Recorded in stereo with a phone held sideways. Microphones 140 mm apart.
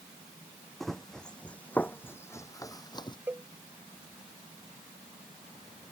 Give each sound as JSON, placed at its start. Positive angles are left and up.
{"t": 0.8, "sound": "running footsteps", "side_deg": 0}
{"t": 3.3, "sound": "a cowbell", "side_deg": -15}